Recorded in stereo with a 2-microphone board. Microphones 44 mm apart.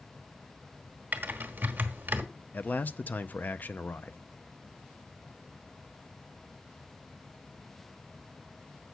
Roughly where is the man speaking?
Left.